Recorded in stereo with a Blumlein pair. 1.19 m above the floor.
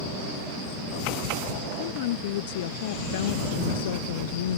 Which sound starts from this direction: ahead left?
A woman speaking, at 1.8 s.